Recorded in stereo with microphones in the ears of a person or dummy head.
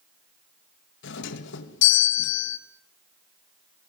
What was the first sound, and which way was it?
A doorbell, 70° left (ahead or behind).